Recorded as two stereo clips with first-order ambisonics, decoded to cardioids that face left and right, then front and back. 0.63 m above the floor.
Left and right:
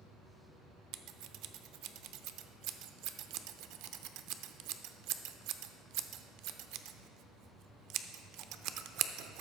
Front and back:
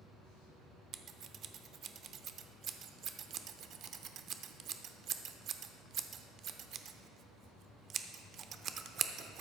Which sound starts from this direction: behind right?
Scissors, at 0.9 s.